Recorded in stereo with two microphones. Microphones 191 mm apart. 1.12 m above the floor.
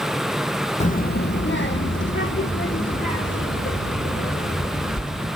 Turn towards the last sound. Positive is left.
turn(degrees=80)